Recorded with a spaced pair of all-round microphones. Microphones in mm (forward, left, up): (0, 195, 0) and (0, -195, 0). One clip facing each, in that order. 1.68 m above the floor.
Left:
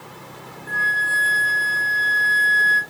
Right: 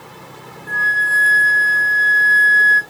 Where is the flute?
60° right (ahead or behind), 1.7 m.